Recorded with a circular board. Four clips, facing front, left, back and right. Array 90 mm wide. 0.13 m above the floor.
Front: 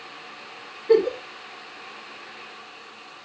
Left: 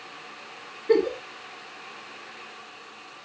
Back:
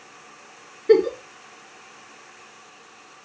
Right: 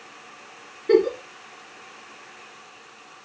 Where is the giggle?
150° right, 1.8 m.